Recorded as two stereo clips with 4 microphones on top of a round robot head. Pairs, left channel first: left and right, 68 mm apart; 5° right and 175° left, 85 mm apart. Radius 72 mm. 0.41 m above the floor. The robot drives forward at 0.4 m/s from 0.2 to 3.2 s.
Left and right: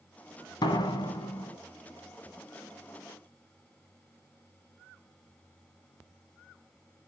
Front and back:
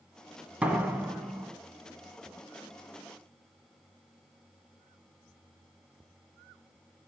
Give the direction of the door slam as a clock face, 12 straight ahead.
9 o'clock.